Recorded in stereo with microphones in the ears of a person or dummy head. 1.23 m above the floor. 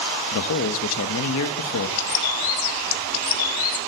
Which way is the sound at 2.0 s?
80° left.